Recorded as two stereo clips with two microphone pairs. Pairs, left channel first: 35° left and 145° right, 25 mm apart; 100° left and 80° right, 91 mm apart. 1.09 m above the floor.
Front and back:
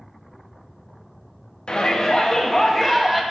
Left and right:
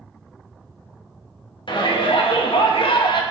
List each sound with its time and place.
1.7 s a shout: 80° left, 1.9 m; by 3.2 s 120° left, 1.7 m